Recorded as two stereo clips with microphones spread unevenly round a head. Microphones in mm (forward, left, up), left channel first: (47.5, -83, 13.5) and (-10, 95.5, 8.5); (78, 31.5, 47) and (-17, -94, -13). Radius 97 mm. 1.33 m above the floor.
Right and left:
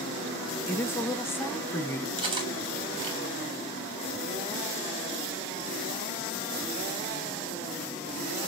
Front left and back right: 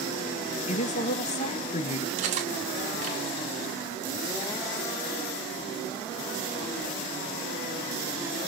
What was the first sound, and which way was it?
A woman speaking, 5° left.